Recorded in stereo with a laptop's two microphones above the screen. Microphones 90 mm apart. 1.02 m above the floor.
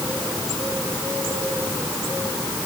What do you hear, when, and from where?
Only background noise.